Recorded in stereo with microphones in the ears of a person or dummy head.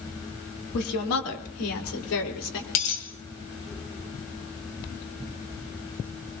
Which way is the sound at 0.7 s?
85° left.